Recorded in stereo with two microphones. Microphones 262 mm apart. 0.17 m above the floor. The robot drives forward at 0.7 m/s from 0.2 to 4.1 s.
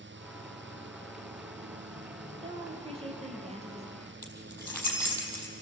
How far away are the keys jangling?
About 4.5 m.